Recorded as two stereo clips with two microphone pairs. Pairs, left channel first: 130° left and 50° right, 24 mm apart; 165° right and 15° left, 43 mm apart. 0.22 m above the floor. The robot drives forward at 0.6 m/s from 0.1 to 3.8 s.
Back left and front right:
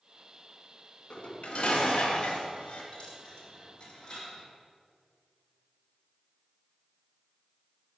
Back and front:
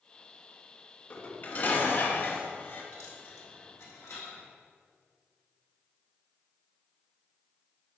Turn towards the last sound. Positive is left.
turn(degrees=-170)